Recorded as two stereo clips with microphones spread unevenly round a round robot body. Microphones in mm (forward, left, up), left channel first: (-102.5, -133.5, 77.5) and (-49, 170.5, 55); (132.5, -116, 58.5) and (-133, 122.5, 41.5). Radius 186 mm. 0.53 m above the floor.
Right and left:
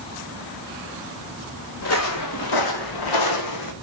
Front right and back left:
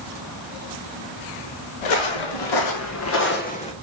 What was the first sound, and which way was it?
Footsteps, 45° right.